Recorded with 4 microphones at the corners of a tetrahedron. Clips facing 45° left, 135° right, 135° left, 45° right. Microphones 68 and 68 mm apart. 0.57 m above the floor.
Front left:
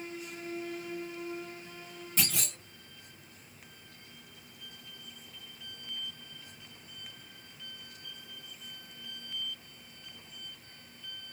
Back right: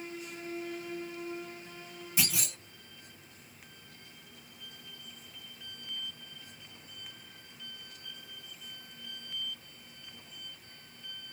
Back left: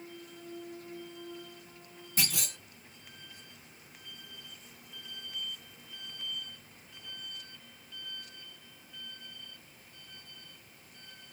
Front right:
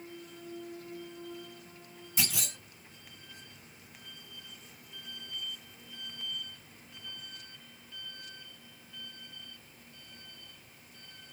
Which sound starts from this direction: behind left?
A clunk, at 2.2 s.